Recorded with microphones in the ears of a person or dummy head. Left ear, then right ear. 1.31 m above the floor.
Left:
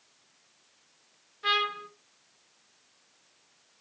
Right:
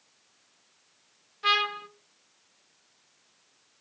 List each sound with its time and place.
1.4 s a trumpet: 15° right (ahead or behind), 0.8 m